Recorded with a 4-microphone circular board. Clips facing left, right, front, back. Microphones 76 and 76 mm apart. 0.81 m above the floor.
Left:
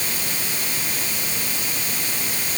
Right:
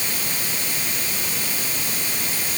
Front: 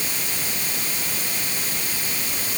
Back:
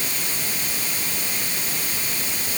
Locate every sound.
Only background noise.